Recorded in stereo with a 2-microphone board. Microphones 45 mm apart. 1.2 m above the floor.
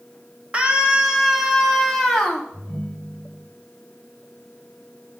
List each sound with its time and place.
0.5 s a scream: 30° right (ahead or behind), 1.7 m; by 2.4 s 15° left (ahead or behind), 2 m
2.5 s a ringtone: 45° right (ahead or behind), 3.5 m